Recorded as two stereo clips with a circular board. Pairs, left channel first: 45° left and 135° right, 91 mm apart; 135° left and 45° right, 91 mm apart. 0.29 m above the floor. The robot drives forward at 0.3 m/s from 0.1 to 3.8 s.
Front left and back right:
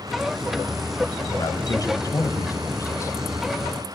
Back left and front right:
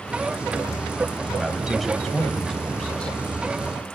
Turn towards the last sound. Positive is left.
turn(degrees=75)